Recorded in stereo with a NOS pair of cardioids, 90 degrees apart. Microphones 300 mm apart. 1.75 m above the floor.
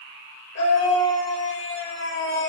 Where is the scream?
60° left, 6.5 m; by 2.5 s 40° left, 7.5 m.